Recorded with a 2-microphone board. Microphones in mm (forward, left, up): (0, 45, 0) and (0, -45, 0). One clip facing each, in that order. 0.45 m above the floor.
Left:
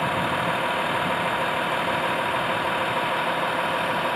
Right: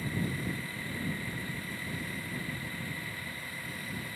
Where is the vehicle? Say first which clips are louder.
Left 12 dB; 85° left.